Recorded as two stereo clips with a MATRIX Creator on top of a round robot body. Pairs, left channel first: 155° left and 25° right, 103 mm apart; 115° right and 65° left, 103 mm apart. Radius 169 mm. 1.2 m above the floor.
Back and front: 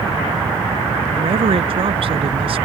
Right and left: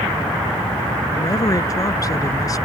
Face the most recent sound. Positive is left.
turn(degrees=-55)